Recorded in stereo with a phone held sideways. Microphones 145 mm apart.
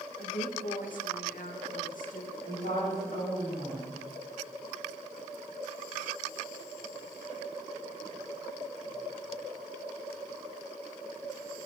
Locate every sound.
0.2 s a woman speaking: 65° left (ahead or behind), 1.0 m
2.4 s a woman speaking: 75° left (ahead or behind), 4.5 m